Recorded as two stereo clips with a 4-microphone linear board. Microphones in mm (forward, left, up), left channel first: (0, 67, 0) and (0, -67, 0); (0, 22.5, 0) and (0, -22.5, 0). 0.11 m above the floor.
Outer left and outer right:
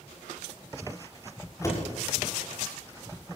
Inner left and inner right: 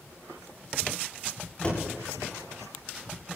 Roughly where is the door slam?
Left.